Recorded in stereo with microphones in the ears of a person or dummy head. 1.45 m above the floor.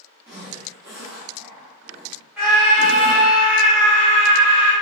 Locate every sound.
0.3 s a zipper: 15° right (ahead or behind), 1.0 m
2.4 s a scream: 10° right (ahead or behind), 1.3 m